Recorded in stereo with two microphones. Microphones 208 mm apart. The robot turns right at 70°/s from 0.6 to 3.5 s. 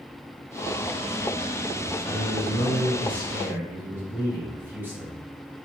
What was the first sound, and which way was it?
A man speaking, 95° left.